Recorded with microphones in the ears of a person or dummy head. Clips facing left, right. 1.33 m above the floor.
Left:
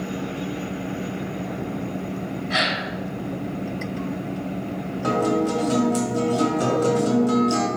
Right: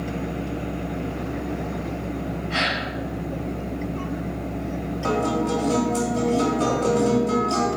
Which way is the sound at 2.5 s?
65° left (ahead or behind).